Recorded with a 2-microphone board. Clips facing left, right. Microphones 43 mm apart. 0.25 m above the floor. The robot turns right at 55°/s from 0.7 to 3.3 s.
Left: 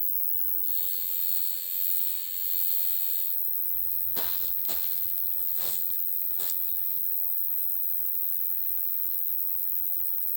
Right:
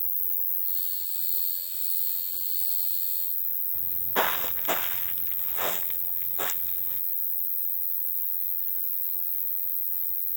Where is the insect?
130° left; by 10.4 s 90° right.